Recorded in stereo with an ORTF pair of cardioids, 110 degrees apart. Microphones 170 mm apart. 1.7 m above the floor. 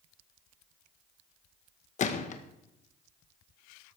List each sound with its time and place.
2.0 s a gunshot: 45° left, 1.6 m